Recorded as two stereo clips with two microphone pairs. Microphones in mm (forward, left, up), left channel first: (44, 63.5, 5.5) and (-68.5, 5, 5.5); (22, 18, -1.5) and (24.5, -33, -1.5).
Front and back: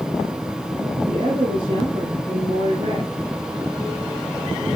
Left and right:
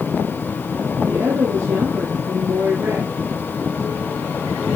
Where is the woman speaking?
110° right, 4 m.